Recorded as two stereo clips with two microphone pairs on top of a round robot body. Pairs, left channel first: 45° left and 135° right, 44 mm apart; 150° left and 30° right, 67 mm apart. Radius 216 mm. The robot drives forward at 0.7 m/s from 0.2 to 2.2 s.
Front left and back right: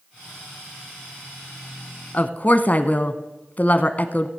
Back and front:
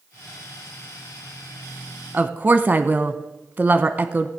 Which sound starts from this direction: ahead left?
A woman speaking, at 2.1 s.